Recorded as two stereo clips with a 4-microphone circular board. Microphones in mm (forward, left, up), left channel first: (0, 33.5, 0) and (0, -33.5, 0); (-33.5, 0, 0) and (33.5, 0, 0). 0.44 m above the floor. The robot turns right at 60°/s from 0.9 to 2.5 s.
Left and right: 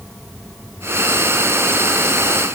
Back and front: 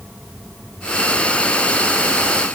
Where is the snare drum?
I don't hear a snare drum.